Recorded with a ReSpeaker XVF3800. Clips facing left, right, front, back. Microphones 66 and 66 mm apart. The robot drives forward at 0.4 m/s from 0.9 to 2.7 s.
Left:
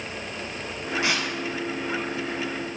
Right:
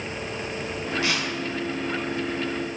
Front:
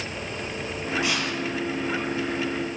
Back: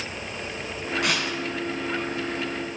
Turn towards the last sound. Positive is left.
turn(degrees=160)